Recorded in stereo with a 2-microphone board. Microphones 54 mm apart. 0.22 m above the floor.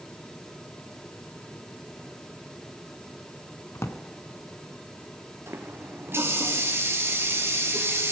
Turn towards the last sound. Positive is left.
turn(degrees=-50)  # may be behind; listen again after turning